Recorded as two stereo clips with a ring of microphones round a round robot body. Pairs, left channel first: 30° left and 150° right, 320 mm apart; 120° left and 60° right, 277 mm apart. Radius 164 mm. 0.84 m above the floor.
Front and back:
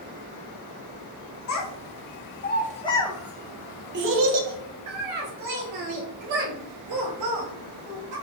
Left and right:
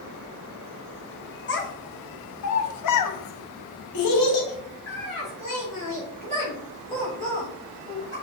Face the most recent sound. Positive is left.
turn(degrees=-160)